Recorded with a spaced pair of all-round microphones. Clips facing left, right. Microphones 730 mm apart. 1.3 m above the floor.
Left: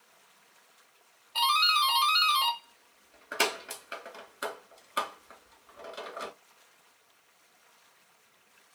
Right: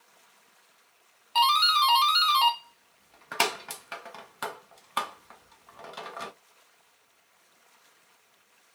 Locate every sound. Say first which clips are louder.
1.4 s a doorbell: right 5 dB; 35° right (ahead or behind), 0.6 m